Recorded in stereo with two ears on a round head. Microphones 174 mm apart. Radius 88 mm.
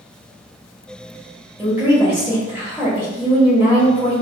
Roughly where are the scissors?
I don't hear scissors.